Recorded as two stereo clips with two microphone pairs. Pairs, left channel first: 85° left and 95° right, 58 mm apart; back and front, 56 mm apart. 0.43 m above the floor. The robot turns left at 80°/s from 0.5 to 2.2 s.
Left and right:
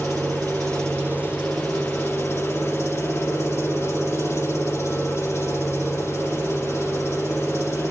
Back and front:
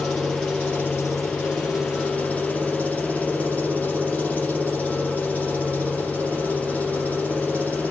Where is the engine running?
100° right, 6 m; by 7.9 s 120° left, 6 m.